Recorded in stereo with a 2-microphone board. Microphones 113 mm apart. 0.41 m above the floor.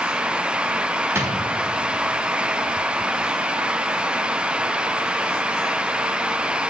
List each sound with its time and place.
1.1 s a drawer: 25° right (ahead or behind), 0.5 m